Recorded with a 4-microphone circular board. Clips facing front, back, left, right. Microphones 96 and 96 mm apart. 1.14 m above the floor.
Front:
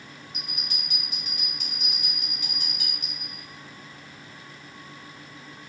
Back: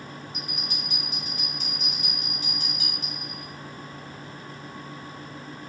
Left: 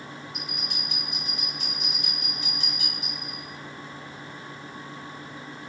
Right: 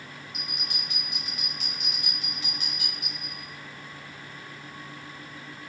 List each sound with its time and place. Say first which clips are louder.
0.3 s a bell: back 5 dB, left 3 dB; 140° left, 1.4 m